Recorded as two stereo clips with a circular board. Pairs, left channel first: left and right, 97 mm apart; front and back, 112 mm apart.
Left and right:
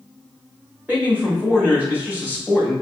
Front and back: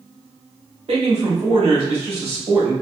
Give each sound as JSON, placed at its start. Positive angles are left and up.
{"t": 0.9, "sound": "a man speaking", "azimuth_deg": -160, "distance_m": 1.7}